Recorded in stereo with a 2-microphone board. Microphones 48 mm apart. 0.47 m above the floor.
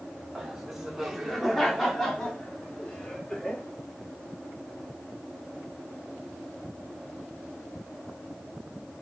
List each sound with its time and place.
0.3 s laughter: 10° right (ahead or behind), 1.7 m; by 3.6 s 15° left (ahead or behind), 1.8 m